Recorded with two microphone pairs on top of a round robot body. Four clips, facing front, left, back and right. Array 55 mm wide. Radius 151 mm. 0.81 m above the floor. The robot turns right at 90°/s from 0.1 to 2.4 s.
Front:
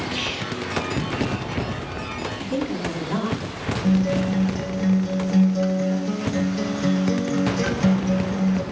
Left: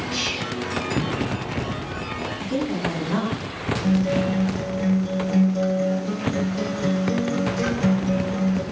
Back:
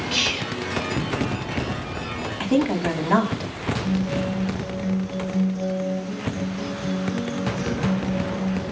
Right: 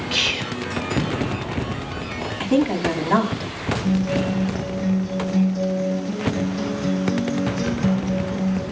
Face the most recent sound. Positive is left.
turn(degrees=50)